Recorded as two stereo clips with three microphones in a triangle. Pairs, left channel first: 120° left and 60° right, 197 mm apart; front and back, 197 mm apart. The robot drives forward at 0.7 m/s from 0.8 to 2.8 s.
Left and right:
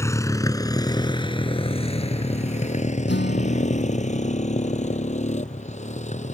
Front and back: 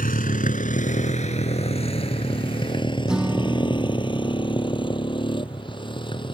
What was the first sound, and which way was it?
A motorcycle, 45° left.